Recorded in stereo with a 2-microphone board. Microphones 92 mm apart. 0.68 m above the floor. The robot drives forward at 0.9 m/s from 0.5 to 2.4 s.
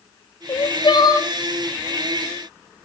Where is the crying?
60° left (ahead or behind), 0.6 m; by 1.3 s 35° left (ahead or behind), 1.0 m.